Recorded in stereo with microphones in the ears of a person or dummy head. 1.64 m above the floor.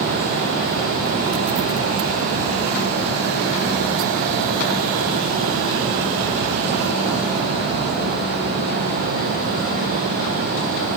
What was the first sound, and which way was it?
Only background noise.